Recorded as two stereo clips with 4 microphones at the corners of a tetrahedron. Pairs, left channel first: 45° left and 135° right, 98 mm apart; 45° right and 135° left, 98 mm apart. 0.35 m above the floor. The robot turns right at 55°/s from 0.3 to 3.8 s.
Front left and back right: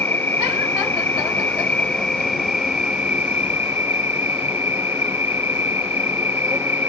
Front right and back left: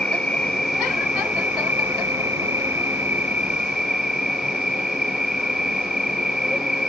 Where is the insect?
20° left; by 6.9 s 150° right.